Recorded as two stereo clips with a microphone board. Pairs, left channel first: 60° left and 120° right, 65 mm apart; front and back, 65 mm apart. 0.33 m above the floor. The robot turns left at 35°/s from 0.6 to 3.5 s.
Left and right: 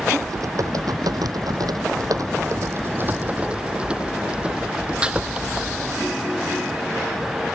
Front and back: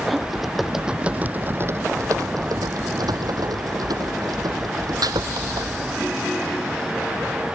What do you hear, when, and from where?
0.2 s typing on a keyboard: 90° right; by 5.7 s 165° left